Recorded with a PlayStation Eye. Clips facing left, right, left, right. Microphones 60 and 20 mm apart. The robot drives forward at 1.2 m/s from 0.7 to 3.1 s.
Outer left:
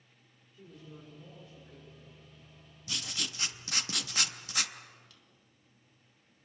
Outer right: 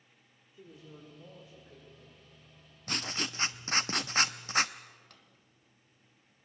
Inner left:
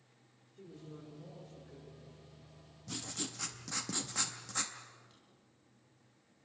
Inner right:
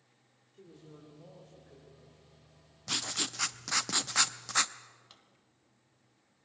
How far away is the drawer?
About 1.6 m.